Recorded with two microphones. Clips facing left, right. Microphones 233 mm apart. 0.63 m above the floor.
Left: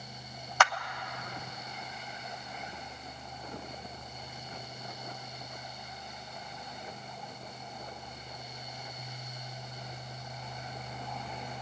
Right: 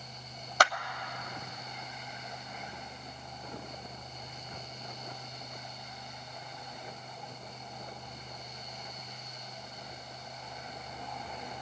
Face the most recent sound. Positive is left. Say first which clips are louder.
# right 1 dB
turn(degrees=-35)  # may be behind; listen again after turning